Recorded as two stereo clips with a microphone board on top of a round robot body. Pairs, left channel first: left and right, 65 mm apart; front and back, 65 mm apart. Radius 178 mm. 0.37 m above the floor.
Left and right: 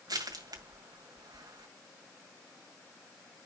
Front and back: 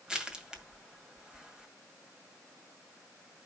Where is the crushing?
100° right, 2 m.